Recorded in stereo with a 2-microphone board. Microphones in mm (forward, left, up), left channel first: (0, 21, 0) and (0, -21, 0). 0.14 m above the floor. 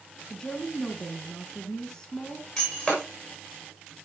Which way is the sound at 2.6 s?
15° left (ahead or behind).